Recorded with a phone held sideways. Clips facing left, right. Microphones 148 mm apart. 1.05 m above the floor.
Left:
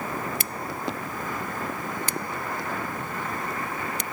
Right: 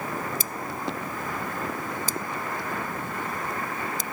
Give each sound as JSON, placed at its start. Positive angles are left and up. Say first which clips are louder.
{"t": 0.4, "sound": "scissors", "louder": "even", "side_deg": 70}